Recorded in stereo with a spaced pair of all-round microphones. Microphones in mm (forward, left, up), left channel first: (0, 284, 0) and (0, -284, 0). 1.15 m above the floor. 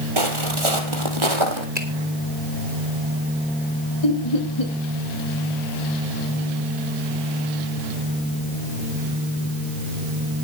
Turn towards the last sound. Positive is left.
turn(degrees=75)  # may be behind; listen again after turning